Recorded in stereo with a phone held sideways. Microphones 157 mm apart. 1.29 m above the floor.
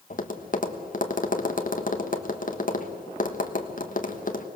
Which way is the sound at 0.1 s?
60° left (ahead or behind).